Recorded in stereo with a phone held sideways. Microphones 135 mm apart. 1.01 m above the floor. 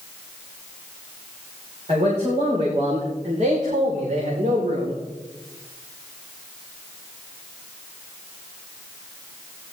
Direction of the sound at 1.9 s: 55° right (ahead or behind).